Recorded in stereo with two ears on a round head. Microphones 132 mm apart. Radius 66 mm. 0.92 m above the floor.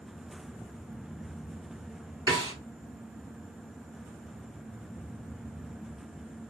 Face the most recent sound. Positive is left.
turn(degrees=-25)  # may be behind; listen again after turning